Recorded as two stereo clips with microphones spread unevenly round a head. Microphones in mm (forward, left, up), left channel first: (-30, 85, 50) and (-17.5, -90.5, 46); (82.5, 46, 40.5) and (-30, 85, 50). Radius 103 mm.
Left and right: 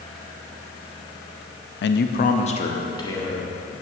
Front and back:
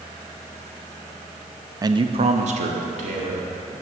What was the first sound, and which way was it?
A man speaking, 100° left.